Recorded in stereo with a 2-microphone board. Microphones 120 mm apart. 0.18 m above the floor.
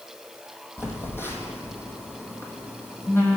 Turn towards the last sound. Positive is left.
turn(degrees=20)  # may be behind; listen again after turning